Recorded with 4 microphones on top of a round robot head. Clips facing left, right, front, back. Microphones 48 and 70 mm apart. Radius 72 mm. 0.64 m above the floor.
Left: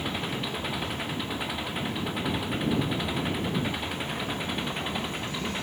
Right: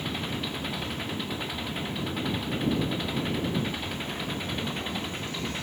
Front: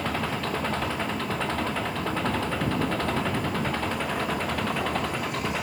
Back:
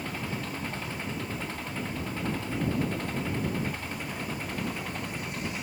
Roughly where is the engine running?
Ahead.